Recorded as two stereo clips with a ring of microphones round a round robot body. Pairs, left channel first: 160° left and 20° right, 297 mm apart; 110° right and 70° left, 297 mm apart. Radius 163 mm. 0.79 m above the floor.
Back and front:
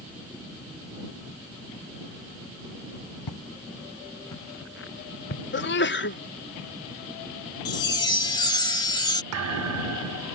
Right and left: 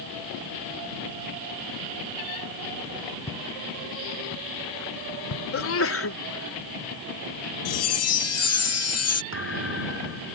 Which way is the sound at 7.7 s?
130° right.